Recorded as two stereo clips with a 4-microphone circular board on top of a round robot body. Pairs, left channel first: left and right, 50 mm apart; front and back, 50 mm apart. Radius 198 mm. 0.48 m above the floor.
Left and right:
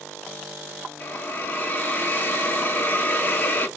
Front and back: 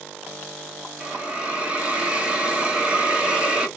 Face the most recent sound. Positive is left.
turn(degrees=120)